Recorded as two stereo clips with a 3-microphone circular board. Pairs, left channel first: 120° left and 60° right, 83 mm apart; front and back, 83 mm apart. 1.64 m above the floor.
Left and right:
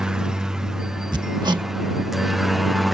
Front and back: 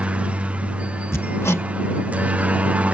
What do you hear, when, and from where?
0.0 s a helicopter: 130° right; by 3.0 s 150° right
1.1 s hammering: 55° right